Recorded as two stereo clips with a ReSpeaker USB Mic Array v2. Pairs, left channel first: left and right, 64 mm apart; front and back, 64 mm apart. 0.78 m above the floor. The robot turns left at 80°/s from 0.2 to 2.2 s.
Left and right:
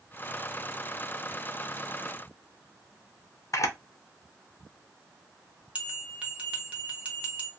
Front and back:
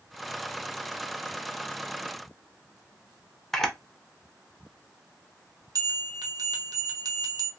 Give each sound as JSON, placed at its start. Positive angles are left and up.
{"t": 3.5, "sound": "a camera shutter", "azimuth_deg": 85, "distance_m": 0.5}
{"t": 5.8, "sound": "a bell", "azimuth_deg": -160, "distance_m": 0.9}